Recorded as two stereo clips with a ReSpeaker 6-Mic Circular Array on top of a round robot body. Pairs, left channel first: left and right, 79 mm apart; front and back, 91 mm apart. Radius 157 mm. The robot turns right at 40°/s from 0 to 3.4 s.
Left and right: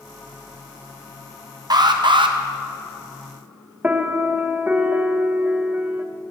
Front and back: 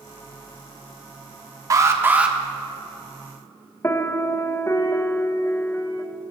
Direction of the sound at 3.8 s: 35° right.